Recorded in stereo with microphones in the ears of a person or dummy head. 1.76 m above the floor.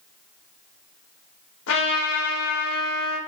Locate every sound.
1.7 s a trumpet: 75° left (ahead or behind), 1.9 m